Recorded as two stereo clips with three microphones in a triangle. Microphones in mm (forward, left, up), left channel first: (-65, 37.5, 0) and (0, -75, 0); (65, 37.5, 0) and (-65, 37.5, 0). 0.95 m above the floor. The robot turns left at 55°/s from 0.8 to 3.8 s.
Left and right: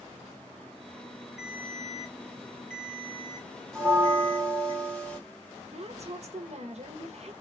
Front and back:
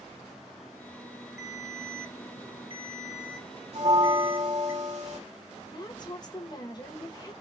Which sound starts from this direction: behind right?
A bell, at 3.7 s.